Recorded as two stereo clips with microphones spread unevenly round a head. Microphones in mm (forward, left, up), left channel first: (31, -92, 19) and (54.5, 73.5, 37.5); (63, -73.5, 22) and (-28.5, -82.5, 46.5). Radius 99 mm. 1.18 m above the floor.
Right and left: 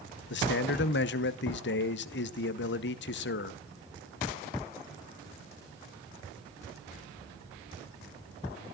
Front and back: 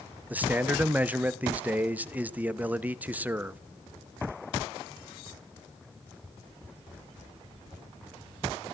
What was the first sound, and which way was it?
A man speaking, 95° right.